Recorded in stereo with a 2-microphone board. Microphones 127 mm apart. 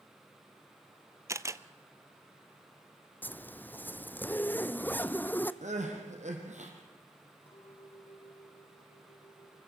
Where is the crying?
70° right (ahead or behind), 3.5 m.